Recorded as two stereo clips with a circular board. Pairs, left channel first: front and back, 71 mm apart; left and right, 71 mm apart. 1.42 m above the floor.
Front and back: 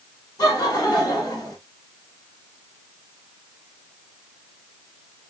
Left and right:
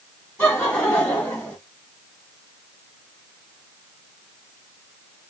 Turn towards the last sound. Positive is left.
turn(degrees=30)